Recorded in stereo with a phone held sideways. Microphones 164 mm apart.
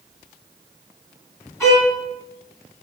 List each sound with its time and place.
1.6 s a violin: 15° left (ahead or behind), 3.5 m